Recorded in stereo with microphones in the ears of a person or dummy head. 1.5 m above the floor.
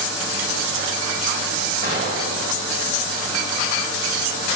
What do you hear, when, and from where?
1.8 s an explosion: 40° right (ahead or behind), 1.9 m